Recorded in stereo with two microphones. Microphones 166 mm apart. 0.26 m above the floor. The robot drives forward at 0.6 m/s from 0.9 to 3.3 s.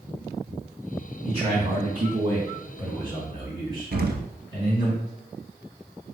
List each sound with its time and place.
1.2 s a man speaking: 35° right (ahead or behind), 2.5 m; by 4.9 s 25° right (ahead or behind), 3 m
3.9 s an explosion: 80° right, 0.8 m